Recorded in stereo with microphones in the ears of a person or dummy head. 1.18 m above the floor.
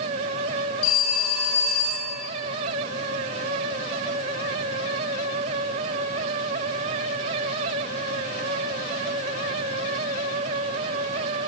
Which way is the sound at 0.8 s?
35° left (ahead or behind).